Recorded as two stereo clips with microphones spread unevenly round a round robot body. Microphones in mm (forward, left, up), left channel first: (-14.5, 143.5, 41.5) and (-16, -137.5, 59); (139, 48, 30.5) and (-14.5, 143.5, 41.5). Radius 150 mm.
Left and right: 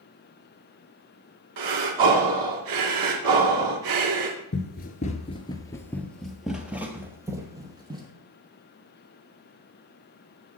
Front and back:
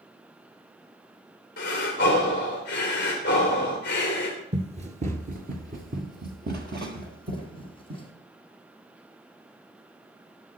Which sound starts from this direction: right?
Breathing, at 1.6 s.